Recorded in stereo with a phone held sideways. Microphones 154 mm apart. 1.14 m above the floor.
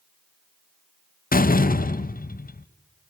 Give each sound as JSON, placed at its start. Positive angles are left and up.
{"t": 1.3, "sound": "a door slam", "side_deg": 65, "distance_m": 0.5}